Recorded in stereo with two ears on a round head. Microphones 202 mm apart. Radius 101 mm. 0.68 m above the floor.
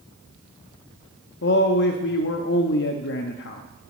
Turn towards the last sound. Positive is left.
turn(degrees=50)  # may be behind; listen again after turning